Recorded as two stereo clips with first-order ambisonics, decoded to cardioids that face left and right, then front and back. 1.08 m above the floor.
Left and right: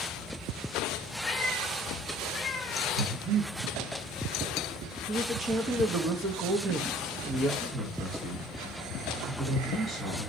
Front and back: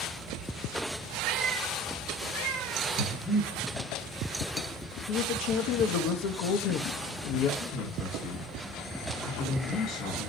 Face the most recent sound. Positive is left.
turn(degrees=-25)